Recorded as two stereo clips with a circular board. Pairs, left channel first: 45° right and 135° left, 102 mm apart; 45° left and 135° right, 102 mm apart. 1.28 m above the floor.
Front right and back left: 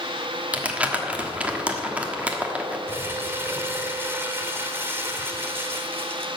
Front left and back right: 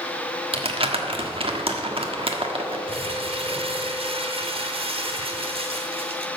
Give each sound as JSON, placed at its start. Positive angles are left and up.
{"t": 0.5, "sound": "crumpling", "azimuth_deg": -150, "distance_m": 1.3}
{"t": 2.9, "sound": "crumpling", "azimuth_deg": -160, "distance_m": 1.2}